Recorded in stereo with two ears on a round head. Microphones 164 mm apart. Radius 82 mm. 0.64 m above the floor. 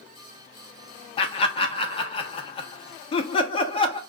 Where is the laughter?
30° left (ahead or behind), 1.1 m.